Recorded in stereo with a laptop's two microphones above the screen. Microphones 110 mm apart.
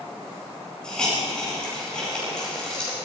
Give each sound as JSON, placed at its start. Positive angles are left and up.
{"t": 0.8, "sound": "a hiss", "side_deg": 5, "distance_m": 5.0}